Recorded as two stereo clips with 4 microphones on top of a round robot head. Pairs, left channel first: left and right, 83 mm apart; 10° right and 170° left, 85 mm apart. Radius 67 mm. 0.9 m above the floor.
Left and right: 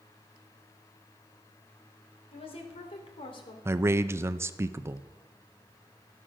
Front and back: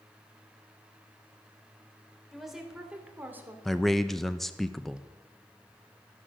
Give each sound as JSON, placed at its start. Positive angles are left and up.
{"t": 2.3, "sound": "a woman speaking", "azimuth_deg": 80, "distance_m": 3.5}
{"t": 3.6, "sound": "a man speaking", "azimuth_deg": -95, "distance_m": 0.6}